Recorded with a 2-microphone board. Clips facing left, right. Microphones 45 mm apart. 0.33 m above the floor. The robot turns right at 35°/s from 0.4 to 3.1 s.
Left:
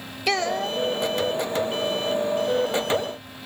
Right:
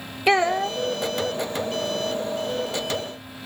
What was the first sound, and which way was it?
A child speaking, 20° right (ahead or behind).